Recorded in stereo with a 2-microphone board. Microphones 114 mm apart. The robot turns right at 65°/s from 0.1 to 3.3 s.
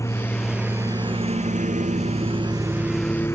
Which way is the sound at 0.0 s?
25° left (ahead or behind).